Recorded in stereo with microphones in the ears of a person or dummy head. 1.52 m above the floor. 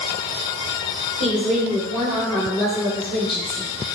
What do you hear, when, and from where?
1.2 s a woman speaking: 25° right (ahead or behind), 1.2 m; by 3.7 s 20° left (ahead or behind), 1.9 m